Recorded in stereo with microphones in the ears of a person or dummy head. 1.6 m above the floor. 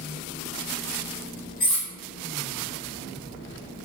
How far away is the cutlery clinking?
About 1.5 m.